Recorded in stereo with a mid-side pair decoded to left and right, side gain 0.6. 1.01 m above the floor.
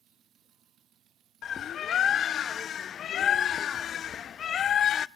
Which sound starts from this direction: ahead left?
A bird, at 1.4 s.